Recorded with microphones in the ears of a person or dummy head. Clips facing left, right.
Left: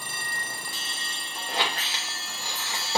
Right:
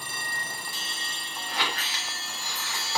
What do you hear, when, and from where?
1.5 s a squeak: 30° left (ahead or behind), 2.5 m